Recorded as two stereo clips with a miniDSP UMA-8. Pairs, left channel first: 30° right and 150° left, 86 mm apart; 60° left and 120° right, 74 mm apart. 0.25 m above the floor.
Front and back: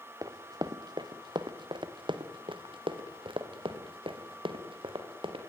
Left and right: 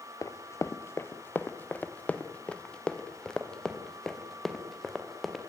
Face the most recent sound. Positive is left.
turn(degrees=150)